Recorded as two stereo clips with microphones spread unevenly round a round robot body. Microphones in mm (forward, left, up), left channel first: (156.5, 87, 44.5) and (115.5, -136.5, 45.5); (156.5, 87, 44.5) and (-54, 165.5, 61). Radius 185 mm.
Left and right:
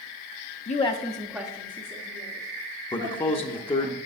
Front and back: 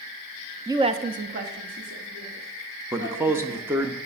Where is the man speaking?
85° left, 0.7 m.